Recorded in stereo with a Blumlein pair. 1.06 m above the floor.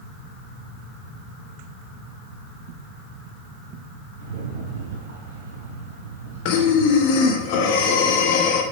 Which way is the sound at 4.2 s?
70° right.